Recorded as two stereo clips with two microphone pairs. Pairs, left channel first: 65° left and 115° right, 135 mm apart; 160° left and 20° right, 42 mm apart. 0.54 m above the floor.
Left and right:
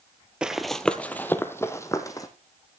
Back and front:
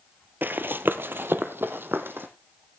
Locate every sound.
0.4 s running footsteps: 35° right, 0.8 m; by 2.3 s 5° left, 1.6 m